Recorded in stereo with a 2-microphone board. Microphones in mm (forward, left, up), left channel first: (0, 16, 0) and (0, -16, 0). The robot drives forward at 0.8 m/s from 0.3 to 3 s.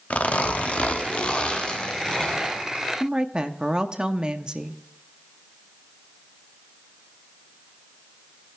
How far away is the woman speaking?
About 0.8 m.